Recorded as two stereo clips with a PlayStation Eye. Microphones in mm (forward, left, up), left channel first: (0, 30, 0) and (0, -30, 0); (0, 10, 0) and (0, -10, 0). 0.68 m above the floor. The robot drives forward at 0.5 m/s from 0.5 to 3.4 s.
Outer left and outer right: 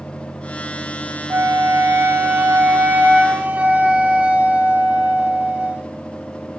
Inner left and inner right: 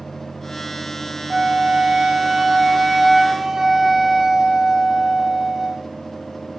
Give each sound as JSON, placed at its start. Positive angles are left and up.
{"t": 1.3, "sound": "a flute", "side_deg": -50, "distance_m": 0.8}